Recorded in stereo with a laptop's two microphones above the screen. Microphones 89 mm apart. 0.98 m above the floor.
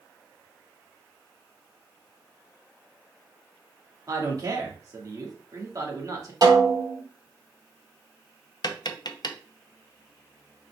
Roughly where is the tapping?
Left.